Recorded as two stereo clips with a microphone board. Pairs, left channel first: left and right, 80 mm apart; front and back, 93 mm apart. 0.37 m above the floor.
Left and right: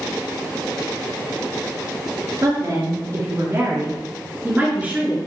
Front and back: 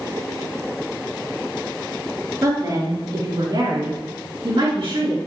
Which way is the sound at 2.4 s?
130° right.